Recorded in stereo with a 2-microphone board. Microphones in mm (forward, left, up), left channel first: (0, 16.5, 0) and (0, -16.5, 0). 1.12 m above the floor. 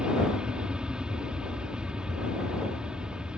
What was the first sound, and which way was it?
An aircraft, 30° right (ahead or behind).